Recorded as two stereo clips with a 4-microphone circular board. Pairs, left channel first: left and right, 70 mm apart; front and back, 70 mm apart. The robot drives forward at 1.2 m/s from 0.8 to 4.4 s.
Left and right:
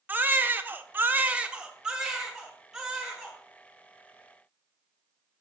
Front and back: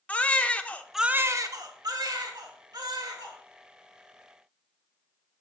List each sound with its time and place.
0.1 s a baby crying: 55° right, 0.5 m; by 3.4 s 175° right, 3 m